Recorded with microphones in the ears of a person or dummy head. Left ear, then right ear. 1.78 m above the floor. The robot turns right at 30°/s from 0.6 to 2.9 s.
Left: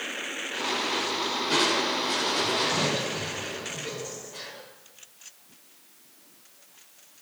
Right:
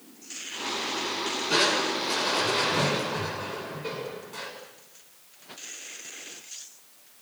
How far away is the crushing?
About 7 m.